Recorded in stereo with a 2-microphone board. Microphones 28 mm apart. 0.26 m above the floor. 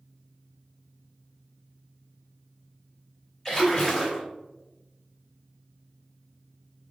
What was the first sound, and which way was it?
A splash, 15° left (ahead or behind).